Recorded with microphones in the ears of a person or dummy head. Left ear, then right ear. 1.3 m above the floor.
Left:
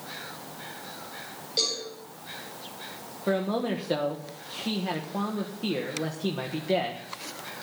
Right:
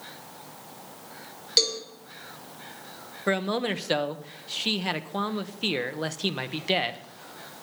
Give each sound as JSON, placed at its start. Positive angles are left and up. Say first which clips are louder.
{"t": 1.6, "sound": "a cowbell", "louder": "right 4 dB", "side_deg": -60, "distance_m": 5.5}
{"t": 3.3, "sound": "a man speaking", "louder": "right 1 dB", "side_deg": -65, "distance_m": 1.3}